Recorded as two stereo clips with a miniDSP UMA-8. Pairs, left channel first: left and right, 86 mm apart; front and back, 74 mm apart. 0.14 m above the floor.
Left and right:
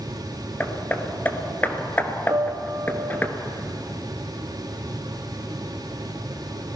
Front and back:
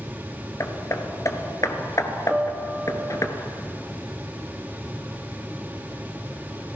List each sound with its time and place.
0.6 s hammering: 25° left, 1.6 m
2.3 s a piano: 110° right, 0.5 m